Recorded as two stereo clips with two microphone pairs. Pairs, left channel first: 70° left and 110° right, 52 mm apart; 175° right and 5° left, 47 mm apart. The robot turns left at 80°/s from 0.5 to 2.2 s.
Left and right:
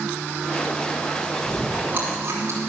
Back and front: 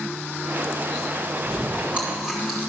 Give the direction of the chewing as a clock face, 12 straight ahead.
1 o'clock.